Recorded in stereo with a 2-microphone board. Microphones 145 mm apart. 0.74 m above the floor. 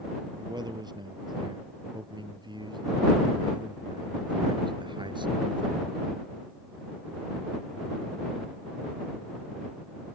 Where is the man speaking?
30° right (ahead or behind); by 6.0 s 35° right (ahead or behind).